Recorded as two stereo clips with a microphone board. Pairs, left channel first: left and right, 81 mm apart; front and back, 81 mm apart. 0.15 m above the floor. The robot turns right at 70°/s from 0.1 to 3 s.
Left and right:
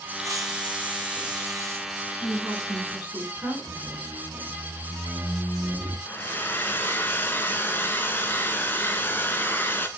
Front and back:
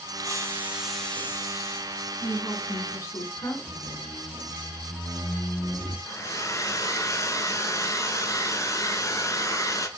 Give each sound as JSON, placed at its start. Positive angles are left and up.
{"t": 0.2, "sound": "a hiss", "azimuth_deg": -140, "distance_m": 1.2}
{"t": 2.2, "sound": "a woman speaking", "azimuth_deg": -85, "distance_m": 2.0}
{"t": 3.7, "sound": "a squeak", "azimuth_deg": -40, "distance_m": 0.9}
{"t": 6.1, "sound": "a hair dryer", "azimuth_deg": 35, "distance_m": 0.6}